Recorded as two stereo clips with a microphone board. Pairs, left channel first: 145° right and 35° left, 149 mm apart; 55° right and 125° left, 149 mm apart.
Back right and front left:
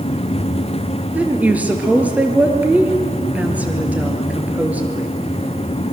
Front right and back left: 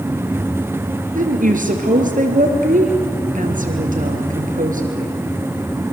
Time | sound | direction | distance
1.1 | a woman speaking | 110° left | 3.5 m